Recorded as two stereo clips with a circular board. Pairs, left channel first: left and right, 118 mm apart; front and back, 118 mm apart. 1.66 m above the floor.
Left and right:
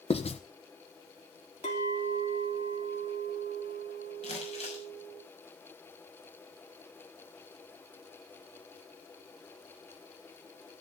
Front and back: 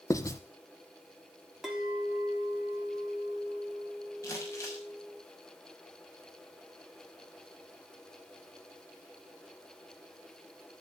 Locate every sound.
0.1 s writing: 60° left, 1.1 m
1.6 s a clink: 95° left, 3 m
4.2 s crumpling: 65° left, 6 m